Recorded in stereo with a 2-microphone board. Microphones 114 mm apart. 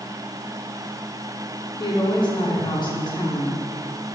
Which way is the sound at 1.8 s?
40° left (ahead or behind).